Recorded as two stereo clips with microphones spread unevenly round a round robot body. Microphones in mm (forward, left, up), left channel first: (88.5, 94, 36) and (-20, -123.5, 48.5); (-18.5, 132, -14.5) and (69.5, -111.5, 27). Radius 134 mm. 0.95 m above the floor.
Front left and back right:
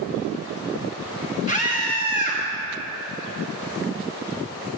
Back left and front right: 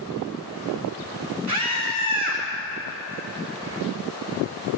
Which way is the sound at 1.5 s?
45° right.